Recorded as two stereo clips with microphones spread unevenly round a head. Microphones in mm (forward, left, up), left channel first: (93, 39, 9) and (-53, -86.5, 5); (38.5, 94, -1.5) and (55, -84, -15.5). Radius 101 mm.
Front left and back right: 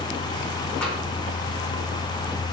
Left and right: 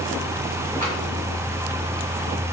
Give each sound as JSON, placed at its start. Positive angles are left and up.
{"t": 0.8, "sound": "tapping", "azimuth_deg": -45, "distance_m": 4.0}